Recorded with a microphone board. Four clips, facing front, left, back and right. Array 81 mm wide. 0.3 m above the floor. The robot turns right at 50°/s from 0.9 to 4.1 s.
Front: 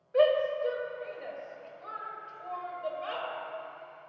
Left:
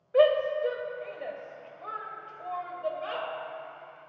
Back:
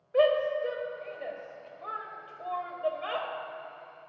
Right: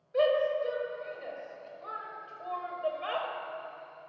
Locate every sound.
0.1 s a shout: 105° left, 1.0 m; by 3.3 s 135° right, 1.0 m